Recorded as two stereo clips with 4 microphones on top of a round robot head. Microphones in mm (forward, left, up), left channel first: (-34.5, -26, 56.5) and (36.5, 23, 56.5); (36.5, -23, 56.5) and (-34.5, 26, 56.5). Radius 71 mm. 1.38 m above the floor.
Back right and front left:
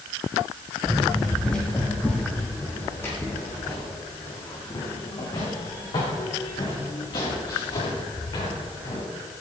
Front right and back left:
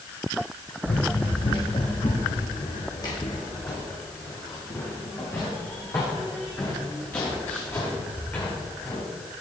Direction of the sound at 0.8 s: 55° right.